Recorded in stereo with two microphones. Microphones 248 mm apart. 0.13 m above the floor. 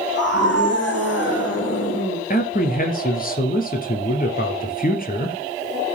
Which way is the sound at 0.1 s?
45° left (ahead or behind).